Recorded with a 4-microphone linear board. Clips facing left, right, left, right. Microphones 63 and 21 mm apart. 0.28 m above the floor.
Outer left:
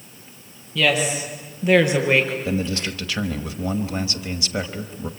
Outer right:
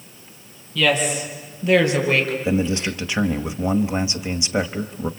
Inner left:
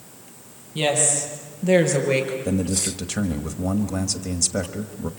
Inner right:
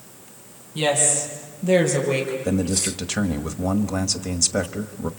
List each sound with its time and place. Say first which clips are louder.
0.8 s a woman speaking: outer right 1 dB, even; 15° left (ahead or behind), 6.5 m; by 2.4 s 20° left (ahead or behind), 4 m
2.5 s a man speaking: outer right 3 dB, inner right 1 dB; 20° right (ahead or behind), 1.2 m